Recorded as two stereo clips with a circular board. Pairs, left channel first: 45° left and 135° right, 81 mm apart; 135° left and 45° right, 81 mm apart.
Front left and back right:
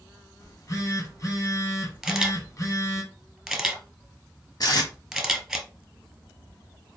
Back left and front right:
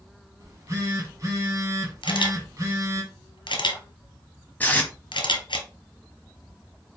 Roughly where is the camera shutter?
Behind left.